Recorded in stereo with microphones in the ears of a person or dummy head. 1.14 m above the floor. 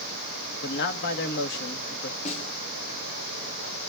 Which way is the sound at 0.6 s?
65° left (ahead or behind).